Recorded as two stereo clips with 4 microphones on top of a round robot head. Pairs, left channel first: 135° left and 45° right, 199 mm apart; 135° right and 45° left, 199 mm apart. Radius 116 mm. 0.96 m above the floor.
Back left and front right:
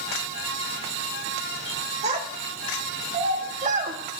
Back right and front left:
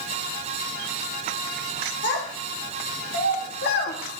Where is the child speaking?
100° right, 3 m; by 4.2 s 95° right, 1.6 m.